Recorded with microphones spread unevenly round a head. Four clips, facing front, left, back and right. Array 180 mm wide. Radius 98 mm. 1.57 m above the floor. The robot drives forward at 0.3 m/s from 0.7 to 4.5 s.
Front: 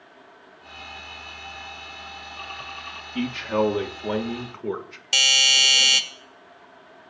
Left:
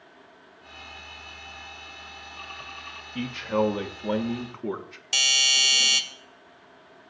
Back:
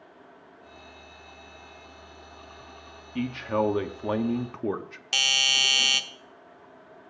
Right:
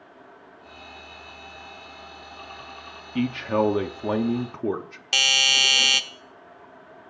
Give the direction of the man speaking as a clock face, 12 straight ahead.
2 o'clock.